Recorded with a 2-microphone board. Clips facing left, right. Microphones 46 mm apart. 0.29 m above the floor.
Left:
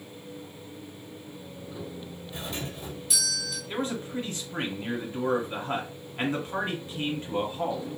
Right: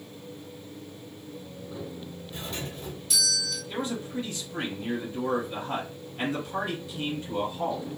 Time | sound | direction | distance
2.3 | a doorbell | 5° left (ahead or behind) | 1.7 m
3.7 | a man speaking | 35° left (ahead or behind) | 1.5 m